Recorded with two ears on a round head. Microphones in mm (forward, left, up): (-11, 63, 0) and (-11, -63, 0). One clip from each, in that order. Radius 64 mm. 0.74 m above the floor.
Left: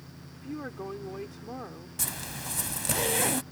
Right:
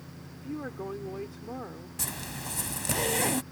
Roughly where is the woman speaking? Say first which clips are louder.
Right 1 dB; centre.